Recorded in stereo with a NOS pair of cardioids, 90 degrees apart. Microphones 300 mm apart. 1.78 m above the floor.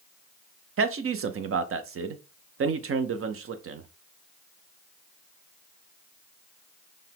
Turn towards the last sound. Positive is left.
turn(degrees=-45)